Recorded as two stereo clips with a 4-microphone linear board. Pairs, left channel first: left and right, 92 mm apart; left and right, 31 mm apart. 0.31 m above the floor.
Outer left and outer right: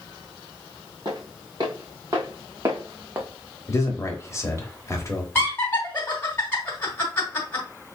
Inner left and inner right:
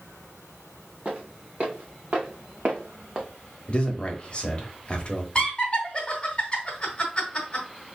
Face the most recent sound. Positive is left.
turn(degrees=25)  # may be behind; listen again after turning